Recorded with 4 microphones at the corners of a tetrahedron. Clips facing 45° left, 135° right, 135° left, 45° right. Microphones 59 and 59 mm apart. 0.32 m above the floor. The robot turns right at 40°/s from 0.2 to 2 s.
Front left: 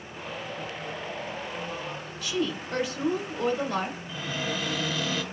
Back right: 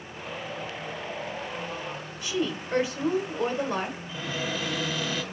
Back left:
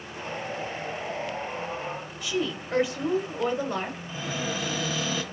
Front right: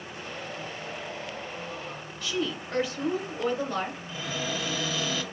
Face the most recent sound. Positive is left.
turn(degrees=150)